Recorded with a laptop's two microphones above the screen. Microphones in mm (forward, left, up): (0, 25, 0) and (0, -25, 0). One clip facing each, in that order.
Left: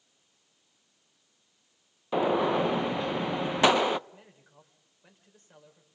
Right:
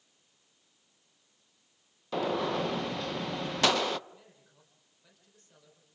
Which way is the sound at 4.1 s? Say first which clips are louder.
Left 2 dB; 30° left (ahead or behind).